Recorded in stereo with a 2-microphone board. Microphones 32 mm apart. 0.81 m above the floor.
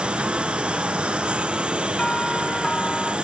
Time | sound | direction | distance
0.0 | a lawn mower | 40° right (ahead or behind) | ?
2.0 | a doorbell | 25° left (ahead or behind) | ?